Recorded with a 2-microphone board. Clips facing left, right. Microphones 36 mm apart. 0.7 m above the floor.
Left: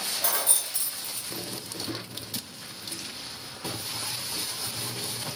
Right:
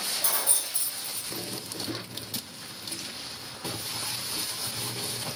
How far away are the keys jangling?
About 0.7 m.